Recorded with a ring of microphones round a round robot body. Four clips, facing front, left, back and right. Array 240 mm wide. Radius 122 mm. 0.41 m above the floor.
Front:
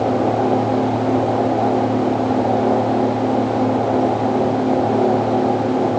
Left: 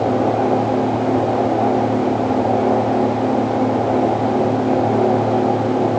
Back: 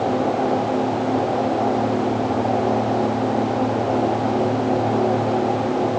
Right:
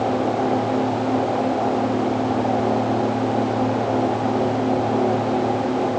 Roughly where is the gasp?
No gasp in this recording.